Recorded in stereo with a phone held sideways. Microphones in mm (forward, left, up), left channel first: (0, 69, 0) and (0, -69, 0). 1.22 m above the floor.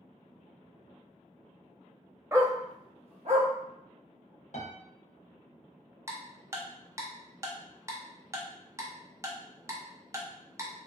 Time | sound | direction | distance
2.3 | a dog barking | 20° right (ahead or behind) | 0.6 m
4.5 | a piano | 60° left (ahead or behind) | 0.6 m
6.1 | ticking | 20° right (ahead or behind) | 0.6 m